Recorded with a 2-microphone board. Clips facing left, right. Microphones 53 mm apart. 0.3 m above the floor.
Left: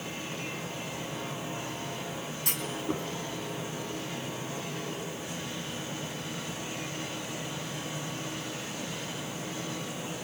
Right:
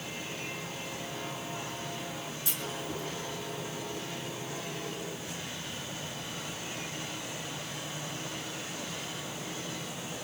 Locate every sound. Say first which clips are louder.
2.5 s a clunk: left 6 dB; 55° left (ahead or behind), 3 m